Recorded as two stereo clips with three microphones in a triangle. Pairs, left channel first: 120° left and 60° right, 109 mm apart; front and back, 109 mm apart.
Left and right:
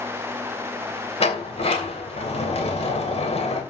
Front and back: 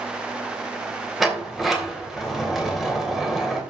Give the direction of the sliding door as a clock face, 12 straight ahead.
9 o'clock.